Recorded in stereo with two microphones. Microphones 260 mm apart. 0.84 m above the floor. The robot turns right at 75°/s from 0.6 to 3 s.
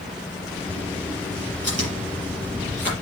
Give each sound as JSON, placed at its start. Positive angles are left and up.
{"t": 1.6, "sound": "chewing", "side_deg": -80, "distance_m": 5.5}